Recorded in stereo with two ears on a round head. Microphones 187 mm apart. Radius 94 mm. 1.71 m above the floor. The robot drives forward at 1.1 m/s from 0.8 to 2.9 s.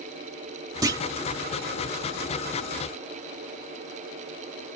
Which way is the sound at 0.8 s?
20° right (ahead or behind).